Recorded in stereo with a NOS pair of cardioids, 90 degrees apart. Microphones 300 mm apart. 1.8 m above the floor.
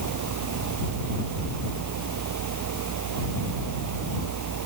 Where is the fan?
65° right.